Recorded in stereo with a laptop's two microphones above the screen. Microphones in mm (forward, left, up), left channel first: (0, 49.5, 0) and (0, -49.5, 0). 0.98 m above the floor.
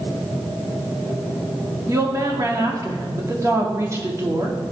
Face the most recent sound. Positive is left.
turn(degrees=-30)  # may be behind; listen again after turning